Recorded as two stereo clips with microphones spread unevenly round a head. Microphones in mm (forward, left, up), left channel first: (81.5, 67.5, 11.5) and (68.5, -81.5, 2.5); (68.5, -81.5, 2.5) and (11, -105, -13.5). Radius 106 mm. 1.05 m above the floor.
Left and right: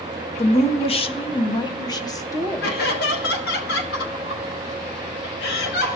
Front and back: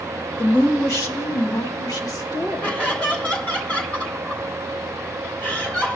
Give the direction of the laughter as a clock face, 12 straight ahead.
8 o'clock.